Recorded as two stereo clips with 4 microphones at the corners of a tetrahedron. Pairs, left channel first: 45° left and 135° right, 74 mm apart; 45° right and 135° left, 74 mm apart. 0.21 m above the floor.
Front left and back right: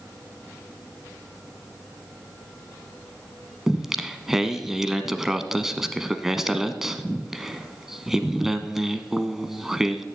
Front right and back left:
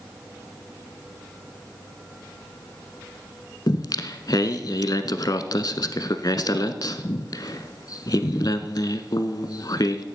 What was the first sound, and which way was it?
Singing, 50° right.